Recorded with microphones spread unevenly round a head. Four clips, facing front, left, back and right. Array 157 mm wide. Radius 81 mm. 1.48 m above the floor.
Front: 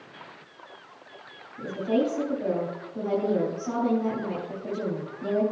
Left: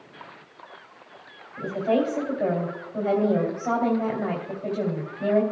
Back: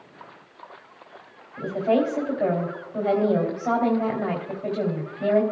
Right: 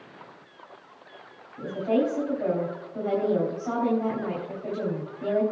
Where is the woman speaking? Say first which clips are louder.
Left 1 dB, back 4 dB; 135° left, 3 m.